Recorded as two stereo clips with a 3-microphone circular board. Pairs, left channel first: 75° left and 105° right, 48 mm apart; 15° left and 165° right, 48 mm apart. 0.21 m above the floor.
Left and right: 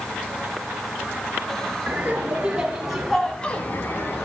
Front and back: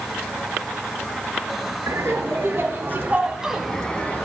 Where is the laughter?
165° right, 2.5 m; by 4.2 s 65° left, 1.7 m.